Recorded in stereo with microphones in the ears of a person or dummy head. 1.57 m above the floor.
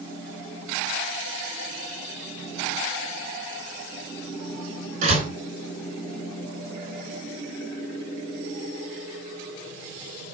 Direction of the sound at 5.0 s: 45° right (ahead or behind).